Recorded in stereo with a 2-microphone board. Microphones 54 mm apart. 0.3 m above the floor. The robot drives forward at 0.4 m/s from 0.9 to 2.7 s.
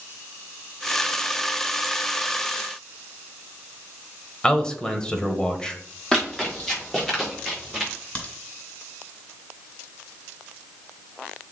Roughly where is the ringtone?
I don't hear a ringtone.